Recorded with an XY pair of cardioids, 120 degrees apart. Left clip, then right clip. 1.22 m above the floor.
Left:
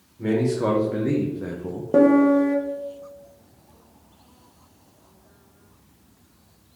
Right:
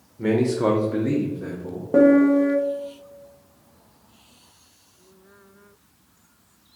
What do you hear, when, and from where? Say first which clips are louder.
0.2 s a man speaking: right 2 dB; 30° right, 0.8 m; by 1.8 s 40° left, 0.7 m
1.9 s a piano: right 1 dB; 10° left, 0.6 m